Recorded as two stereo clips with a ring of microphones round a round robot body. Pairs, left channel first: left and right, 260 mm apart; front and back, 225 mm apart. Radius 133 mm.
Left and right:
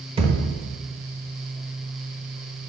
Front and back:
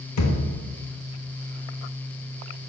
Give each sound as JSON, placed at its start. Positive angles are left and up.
{"t": 0.2, "sound": "a thud", "azimuth_deg": -20, "distance_m": 0.8}